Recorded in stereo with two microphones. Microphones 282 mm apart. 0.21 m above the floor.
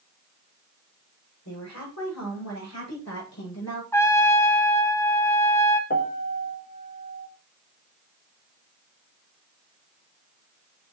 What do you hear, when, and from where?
1.4 s a woman speaking: 75° left (ahead or behind), 9 m; by 3.8 s 70° left (ahead or behind), 9.5 m
3.9 s a trumpet: 10° left (ahead or behind), 1.1 m
5.9 s a piano: 35° left (ahead or behind), 1.3 m